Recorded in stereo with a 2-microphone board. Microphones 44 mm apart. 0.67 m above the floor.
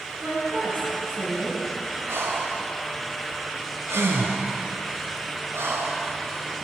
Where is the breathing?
75° right (ahead or behind), 1.7 m.